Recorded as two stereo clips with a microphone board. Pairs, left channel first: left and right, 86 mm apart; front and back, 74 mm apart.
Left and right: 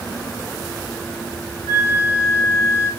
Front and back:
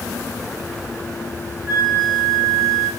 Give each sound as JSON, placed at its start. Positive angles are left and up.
{"t": 1.7, "sound": "a flute", "azimuth_deg": 135, "distance_m": 3.5}